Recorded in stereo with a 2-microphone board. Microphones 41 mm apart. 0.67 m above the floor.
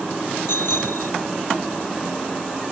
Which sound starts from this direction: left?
A bicycle bell, at 0.5 s.